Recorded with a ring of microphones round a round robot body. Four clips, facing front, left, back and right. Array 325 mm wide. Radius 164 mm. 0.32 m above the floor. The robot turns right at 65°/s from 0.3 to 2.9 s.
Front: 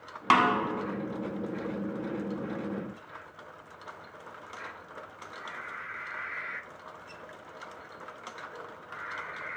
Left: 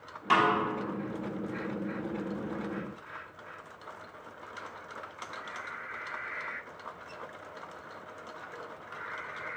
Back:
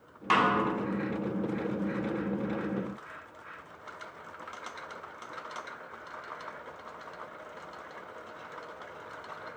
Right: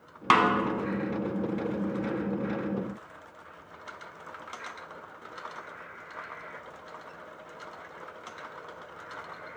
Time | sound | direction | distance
0.3 | a snare drum | 60° right | 0.7 m